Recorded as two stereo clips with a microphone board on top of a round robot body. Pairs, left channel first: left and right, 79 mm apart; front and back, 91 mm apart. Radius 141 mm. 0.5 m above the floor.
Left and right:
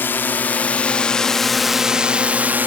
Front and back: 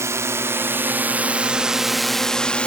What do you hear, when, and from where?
0.0 s a drone: 140° left; by 2.7 s 60° right